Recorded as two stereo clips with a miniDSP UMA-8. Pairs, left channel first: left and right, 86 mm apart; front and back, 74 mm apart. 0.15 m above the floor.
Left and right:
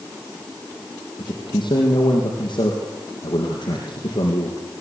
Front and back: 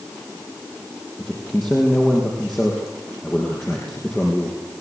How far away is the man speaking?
About 4 m.